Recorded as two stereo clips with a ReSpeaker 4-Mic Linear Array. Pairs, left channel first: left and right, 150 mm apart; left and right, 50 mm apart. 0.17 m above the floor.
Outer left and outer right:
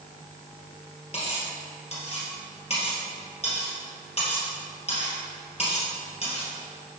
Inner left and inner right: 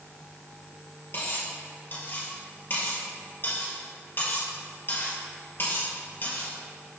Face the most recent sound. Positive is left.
turn(degrees=45)  # may be behind; listen again after turning